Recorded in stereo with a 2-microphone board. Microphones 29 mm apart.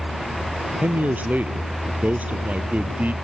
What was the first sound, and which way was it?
A man speaking, 65° right (ahead or behind).